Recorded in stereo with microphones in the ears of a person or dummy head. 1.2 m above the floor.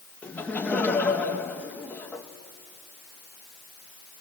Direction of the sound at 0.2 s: 10° left (ahead or behind).